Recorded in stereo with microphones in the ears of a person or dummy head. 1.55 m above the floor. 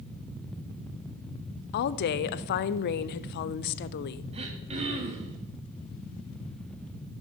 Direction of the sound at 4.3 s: 30° right (ahead or behind).